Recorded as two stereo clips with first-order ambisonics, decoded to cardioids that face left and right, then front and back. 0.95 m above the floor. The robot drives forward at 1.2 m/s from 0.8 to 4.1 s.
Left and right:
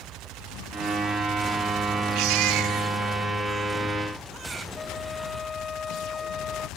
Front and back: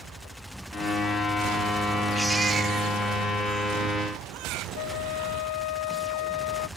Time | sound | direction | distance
2.1 | a baby crying | 90° right | ?
4.8 | a flute | 15° left | ?